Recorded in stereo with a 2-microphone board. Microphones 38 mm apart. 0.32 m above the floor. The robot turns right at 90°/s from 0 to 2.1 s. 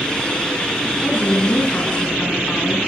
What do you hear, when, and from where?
1.0 s a woman speaking: 65° left, 3 m; by 2.8 s 160° left, 3 m